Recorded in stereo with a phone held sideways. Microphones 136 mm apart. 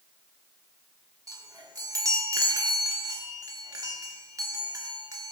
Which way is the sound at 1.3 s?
25° right (ahead or behind).